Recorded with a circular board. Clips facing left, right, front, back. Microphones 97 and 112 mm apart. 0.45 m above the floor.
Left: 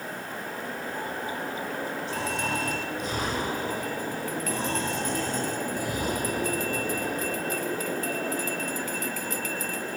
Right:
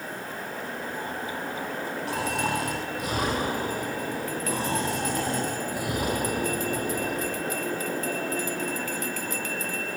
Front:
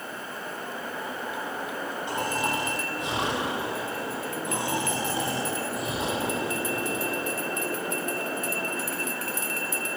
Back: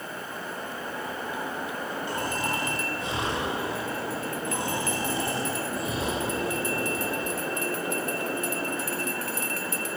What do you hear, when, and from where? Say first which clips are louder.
2.1 s snoring: right 4 dB, front 3 dB; 70° right, 9 m